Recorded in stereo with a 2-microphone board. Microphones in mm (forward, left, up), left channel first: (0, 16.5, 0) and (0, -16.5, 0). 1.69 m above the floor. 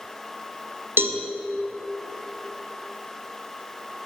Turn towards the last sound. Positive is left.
turn(degrees=-85)